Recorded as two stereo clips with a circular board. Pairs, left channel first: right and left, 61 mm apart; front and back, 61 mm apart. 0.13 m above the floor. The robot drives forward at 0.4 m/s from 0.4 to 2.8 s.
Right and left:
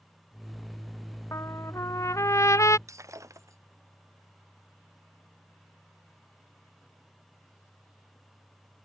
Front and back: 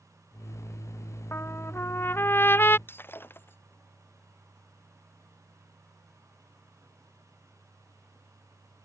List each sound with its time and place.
1.3 s a trumpet: 50° right; by 2.8 s 55° right
2.9 s breaking glass: 55° left